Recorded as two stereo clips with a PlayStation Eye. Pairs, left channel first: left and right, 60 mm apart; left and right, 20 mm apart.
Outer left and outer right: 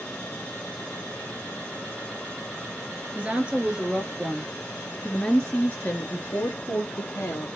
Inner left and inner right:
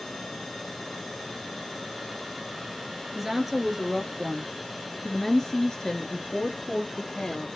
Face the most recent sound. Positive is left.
turn(degrees=55)  # may be behind; listen again after turning